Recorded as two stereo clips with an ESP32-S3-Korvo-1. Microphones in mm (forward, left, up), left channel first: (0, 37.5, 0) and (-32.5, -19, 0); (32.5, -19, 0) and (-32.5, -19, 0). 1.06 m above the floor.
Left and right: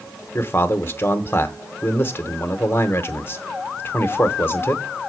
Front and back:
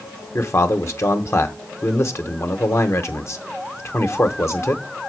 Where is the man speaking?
20° left, 1.1 m.